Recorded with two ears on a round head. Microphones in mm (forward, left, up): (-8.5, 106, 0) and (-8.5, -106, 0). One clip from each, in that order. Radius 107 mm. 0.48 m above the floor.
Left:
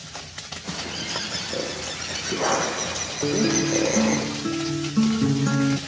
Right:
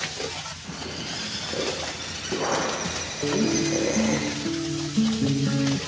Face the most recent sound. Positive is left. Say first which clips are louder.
# left 2 dB
turn(degrees=70)  # may be behind; listen again after turning